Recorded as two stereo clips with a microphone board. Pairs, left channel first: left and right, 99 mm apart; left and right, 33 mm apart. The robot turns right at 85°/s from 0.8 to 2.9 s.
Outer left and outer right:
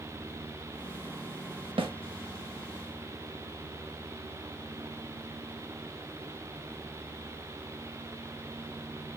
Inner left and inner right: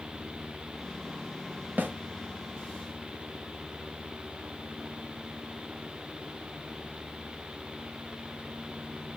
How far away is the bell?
I don't hear a bell.